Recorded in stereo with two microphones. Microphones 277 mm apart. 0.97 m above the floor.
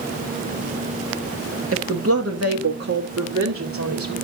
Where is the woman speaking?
50° right (ahead or behind), 1.4 m; by 4.1 s 80° right, 2.0 m.